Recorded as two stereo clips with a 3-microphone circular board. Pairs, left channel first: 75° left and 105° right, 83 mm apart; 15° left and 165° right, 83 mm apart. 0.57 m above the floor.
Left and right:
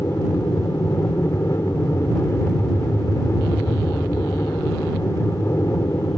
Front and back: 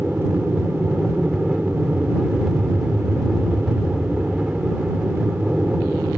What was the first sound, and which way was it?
An aircraft, 120° left.